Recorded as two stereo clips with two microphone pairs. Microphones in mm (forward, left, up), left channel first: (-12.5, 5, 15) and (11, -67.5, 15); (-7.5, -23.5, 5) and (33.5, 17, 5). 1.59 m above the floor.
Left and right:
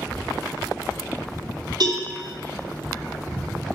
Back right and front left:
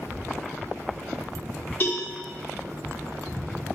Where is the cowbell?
90° right, 4 m.